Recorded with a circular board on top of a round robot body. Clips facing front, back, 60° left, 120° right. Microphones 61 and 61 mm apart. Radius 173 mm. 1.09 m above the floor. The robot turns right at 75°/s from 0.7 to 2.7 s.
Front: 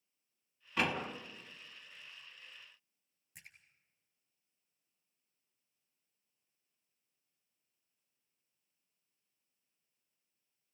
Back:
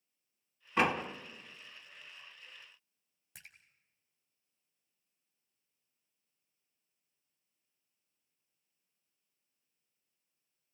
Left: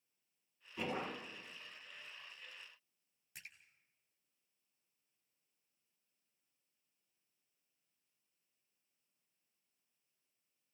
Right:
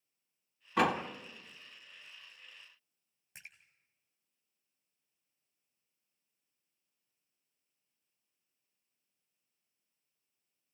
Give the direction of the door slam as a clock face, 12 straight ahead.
4 o'clock.